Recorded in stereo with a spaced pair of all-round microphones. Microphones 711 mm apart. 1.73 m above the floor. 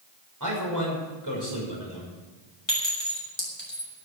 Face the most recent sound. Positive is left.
turn(degrees=40)  # may be behind; listen again after turning